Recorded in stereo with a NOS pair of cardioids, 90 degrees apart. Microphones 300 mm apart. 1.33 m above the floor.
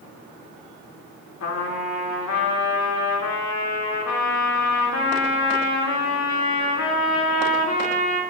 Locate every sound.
1.4 s a trumpet: 60° left, 3 m